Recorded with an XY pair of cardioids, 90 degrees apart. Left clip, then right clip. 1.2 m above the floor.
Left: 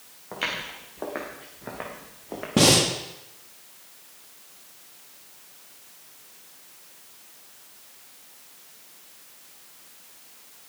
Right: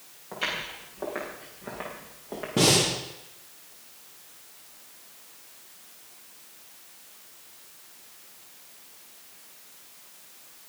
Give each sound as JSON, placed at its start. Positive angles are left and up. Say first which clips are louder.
{"t": 0.3, "sound": "footsteps", "louder": "left 1 dB", "azimuth_deg": 30, "distance_m": 7.5}
{"t": 2.6, "sound": "breathing", "louder": "left 3 dB", "azimuth_deg": 45, "distance_m": 3.0}